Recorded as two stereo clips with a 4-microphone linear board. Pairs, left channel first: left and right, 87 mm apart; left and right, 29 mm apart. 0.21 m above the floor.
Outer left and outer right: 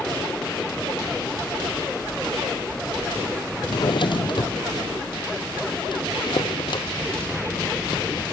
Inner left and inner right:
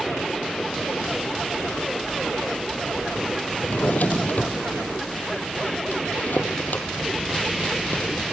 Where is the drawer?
60° left (ahead or behind), 1.7 m.